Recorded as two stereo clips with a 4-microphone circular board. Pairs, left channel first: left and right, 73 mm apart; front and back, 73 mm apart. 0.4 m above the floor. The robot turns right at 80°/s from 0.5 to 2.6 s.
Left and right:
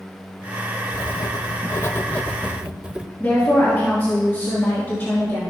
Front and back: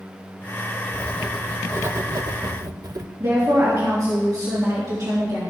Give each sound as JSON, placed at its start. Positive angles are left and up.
{"t": 0.9, "sound": "writing", "azimuth_deg": 60, "distance_m": 0.5}
{"t": 3.2, "sound": "a woman speaking", "azimuth_deg": 150, "distance_m": 4.0}